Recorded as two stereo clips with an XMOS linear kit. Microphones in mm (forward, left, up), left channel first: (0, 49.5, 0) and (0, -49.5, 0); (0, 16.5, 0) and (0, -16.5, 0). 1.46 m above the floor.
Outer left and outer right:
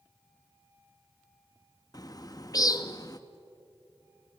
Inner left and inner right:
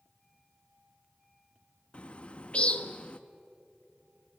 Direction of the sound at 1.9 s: 35° left (ahead or behind).